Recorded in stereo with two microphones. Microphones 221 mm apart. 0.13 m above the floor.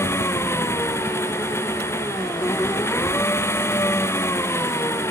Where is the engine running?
10° left (ahead or behind).